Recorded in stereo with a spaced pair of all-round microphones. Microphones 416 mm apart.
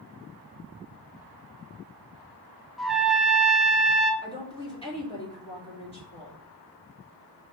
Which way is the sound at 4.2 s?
15° left (ahead or behind).